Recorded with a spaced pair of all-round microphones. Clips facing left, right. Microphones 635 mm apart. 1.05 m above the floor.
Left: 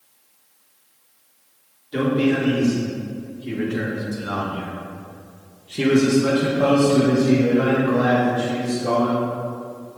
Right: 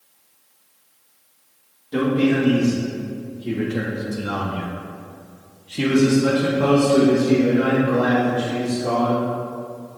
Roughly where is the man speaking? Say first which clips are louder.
Right 1 dB; right.